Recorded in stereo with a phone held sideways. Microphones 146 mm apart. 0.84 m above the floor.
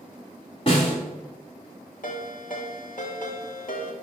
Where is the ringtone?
65° left (ahead or behind), 1.3 m.